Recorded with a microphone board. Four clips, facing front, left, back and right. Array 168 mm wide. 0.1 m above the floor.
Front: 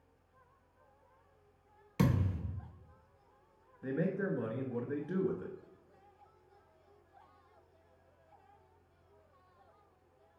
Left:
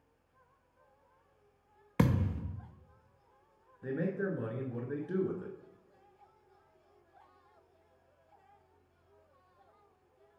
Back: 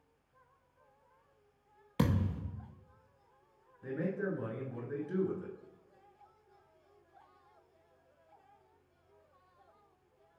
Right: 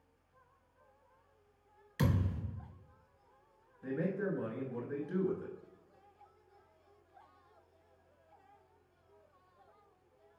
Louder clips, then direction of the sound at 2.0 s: Left 4 dB, even; 105° left.